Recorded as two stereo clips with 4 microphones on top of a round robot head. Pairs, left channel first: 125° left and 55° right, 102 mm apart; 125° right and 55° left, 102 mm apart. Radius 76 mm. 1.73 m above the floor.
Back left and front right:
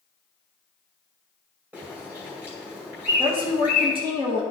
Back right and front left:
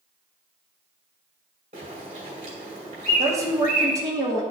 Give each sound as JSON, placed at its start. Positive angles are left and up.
{"t": 1.7, "sound": "a bird", "azimuth_deg": 25, "distance_m": 2.0}
{"t": 3.2, "sound": "a woman speaking", "azimuth_deg": -10, "distance_m": 1.7}